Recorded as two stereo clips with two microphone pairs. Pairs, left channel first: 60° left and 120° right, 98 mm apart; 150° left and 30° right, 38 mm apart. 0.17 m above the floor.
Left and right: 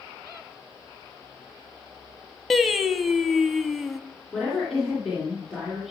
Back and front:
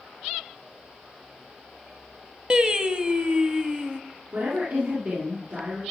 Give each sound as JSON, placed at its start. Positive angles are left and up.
{"t": 2.5, "sound": "singing", "azimuth_deg": -30, "distance_m": 0.6}
{"t": 4.3, "sound": "a woman speaking", "azimuth_deg": -25, "distance_m": 3.0}